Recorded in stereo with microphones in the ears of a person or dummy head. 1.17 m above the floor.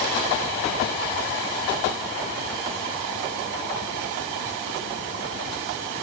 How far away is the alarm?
I don't hear an alarm.